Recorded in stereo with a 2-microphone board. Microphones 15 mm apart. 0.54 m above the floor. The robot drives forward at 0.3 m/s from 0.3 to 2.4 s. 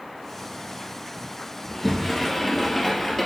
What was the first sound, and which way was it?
A sliding door, 20° left (ahead or behind).